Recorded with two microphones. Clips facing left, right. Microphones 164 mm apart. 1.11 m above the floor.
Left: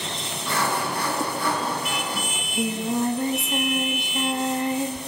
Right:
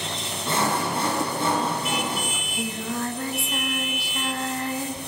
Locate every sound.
0.5 s sawing: 25° right (ahead or behind), 6.5 m
2.3 s singing: 20° left (ahead or behind), 2 m